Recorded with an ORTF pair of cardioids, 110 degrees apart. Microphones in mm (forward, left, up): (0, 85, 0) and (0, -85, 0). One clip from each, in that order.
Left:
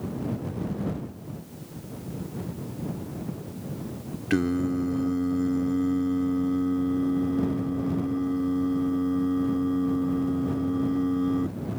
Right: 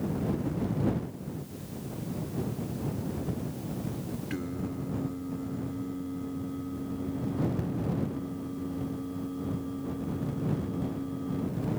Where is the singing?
65° left.